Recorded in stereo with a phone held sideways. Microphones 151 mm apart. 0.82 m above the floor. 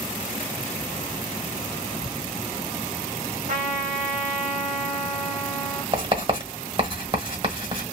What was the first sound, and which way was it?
A trumpet, 55° right (ahead or behind).